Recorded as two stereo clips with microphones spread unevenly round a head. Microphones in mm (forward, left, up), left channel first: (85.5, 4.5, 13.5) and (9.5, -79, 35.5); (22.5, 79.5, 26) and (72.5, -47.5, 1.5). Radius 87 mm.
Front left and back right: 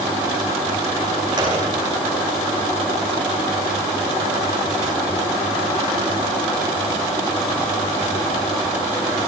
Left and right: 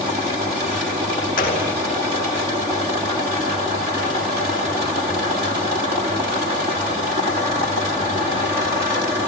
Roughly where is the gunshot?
Behind.